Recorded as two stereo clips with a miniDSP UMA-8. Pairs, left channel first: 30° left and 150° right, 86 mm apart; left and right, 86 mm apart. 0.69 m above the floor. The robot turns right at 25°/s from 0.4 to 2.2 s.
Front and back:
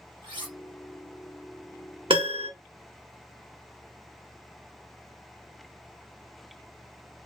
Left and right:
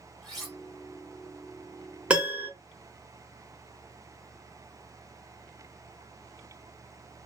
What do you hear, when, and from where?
0.2 s cutlery clinking: straight behind, 1.5 m; by 0.6 s 175° right, 1.5 m
2.1 s a piano: 165° right, 1.0 m